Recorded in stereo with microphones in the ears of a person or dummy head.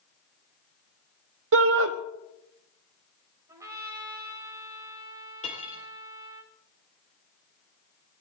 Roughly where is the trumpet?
Centre.